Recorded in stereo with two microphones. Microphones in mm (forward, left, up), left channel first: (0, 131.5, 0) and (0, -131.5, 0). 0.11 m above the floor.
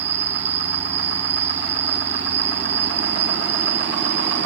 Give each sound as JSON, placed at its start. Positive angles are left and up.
{"t": 0.0, "sound": "an insect", "side_deg": -65, "distance_m": 1.0}